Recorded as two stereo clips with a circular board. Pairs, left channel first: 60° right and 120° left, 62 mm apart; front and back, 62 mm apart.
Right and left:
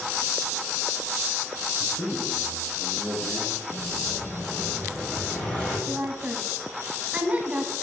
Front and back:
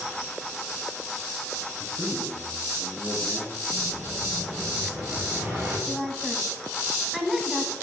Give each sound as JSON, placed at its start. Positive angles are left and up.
{"t": 1.8, "sound": "a man speaking", "azimuth_deg": -125, "distance_m": 1.5}
{"t": 3.7, "sound": "an explosion", "azimuth_deg": -130, "distance_m": 3.0}
{"t": 5.9, "sound": "a woman speaking", "azimuth_deg": 100, "distance_m": 1.1}